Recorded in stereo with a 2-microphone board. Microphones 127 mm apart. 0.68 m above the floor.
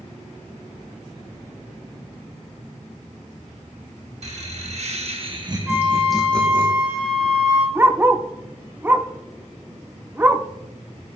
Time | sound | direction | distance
4.2 | laughter | 60° right (ahead or behind) | 1.7 m
5.7 | a flute | 5° right (ahead or behind) | 3 m
7.8 | a dog barking | 15° right (ahead or behind) | 0.5 m